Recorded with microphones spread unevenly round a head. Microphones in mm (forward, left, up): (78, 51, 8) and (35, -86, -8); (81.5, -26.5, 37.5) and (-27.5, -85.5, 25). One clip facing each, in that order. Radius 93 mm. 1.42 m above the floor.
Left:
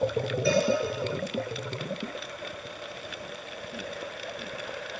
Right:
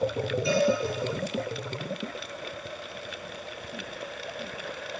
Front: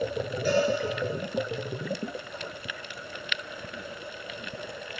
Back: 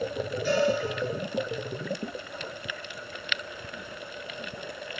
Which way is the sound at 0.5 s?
40° left.